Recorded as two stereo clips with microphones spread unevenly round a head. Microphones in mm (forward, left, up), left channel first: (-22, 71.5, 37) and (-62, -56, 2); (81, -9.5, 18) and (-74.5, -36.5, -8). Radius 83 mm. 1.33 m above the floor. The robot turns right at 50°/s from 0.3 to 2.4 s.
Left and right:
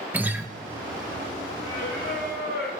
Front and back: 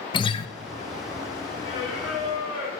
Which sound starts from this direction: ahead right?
A guitar, at 0.1 s.